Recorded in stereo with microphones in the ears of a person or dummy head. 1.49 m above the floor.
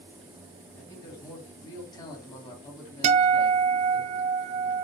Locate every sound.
0.8 s a man speaking: 20° left (ahead or behind), 3.5 m
3.0 s a guitar: 40° right (ahead or behind), 0.8 m